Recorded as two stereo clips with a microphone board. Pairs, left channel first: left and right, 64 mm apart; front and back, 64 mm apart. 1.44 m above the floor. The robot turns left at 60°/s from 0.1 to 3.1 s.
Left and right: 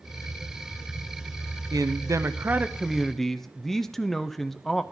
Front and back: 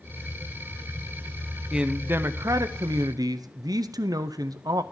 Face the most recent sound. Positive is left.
turn(degrees=175)